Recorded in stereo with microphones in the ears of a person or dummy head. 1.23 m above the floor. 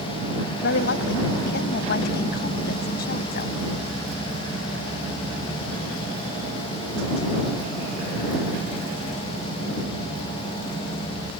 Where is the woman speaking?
70° left (ahead or behind); by 3.5 s 55° left (ahead or behind).